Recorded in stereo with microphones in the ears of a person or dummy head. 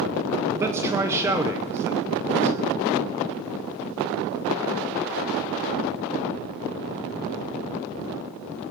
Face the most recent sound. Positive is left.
turn(degrees=-10)  # may be behind; listen again after turning